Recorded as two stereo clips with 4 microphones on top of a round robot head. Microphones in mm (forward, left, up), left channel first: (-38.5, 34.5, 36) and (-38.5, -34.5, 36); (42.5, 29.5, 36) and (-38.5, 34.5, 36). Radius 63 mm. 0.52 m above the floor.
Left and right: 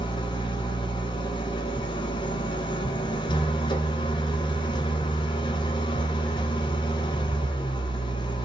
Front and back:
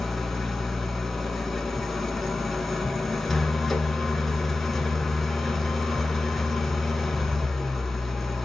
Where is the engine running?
85° left, 1.3 m.